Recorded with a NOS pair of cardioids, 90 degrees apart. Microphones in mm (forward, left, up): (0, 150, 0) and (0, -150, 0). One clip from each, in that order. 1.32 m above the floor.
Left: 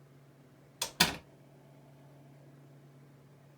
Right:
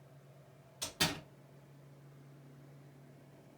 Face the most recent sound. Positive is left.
turn(degrees=65)